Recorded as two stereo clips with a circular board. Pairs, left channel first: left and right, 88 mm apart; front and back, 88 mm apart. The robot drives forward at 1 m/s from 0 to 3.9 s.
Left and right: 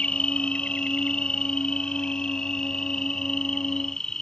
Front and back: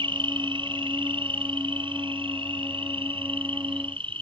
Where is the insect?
170° left; by 4.2 s 175° left.